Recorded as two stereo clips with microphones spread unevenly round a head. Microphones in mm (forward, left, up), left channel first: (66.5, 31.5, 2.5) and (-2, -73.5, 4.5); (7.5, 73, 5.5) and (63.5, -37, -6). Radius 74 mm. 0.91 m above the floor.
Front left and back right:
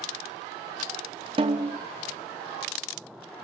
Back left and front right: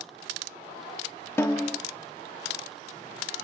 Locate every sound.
1.4 s a snare drum: 175° right, 0.5 m